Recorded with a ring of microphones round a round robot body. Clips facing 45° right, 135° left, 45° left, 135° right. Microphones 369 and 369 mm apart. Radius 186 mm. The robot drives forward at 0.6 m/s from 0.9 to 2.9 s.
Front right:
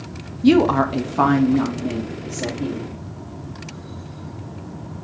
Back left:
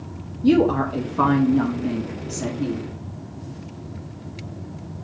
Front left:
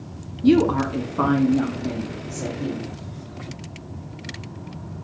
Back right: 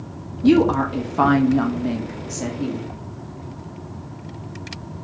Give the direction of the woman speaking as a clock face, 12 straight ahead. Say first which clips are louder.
Front right 2 dB, back right 1 dB; 1 o'clock.